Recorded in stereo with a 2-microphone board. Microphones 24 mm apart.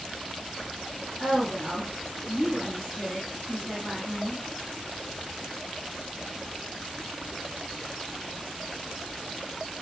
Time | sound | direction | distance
1.2 | a woman speaking | 15° left (ahead or behind) | 1.2 m